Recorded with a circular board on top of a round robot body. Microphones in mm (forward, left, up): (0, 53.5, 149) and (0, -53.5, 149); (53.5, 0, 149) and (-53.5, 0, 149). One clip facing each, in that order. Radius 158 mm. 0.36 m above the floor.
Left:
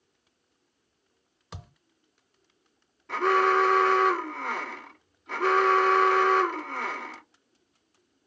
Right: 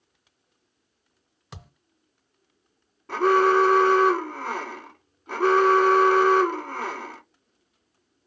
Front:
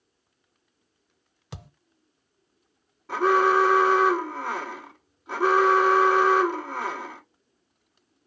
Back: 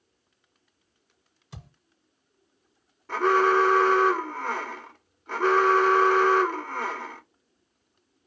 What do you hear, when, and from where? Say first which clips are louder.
1.5 s a thud: even, front 4 dB; straight ahead, 0.9 m
3.1 s an alarm: right 4 dB, front 1 dB; 75° right, 2.5 m